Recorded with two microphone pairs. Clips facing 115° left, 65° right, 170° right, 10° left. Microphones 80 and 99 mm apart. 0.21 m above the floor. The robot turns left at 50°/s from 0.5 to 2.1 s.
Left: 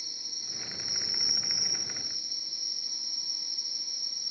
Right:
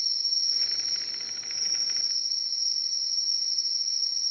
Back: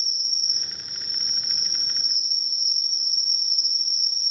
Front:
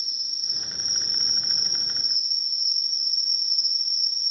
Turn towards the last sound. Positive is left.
turn(degrees=5)